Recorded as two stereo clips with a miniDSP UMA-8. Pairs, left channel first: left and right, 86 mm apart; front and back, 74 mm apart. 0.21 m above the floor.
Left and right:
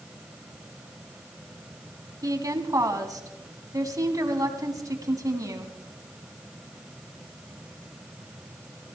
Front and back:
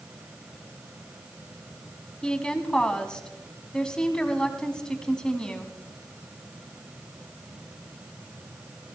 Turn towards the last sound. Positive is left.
turn(degrees=-75)